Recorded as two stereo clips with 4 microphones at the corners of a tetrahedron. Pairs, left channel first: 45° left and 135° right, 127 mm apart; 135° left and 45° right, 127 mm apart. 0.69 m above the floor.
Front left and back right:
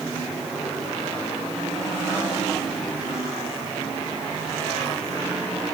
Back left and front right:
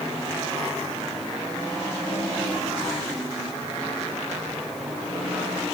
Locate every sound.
Only background noise.